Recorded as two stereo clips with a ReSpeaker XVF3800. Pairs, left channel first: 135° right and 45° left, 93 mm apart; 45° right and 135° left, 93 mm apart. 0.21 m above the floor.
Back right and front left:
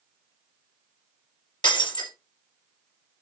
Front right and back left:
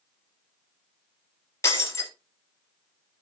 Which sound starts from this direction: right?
Breaking glass, at 1.6 s.